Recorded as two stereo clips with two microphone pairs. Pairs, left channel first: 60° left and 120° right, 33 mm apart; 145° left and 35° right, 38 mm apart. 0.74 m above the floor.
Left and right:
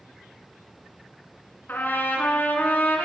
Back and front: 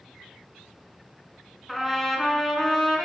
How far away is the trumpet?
About 2.5 m.